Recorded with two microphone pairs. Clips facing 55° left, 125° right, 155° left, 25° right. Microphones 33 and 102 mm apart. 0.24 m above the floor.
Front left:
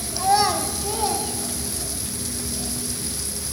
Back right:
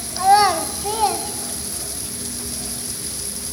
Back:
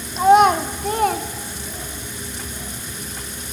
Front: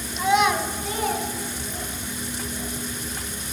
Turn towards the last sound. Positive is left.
turn(degrees=175)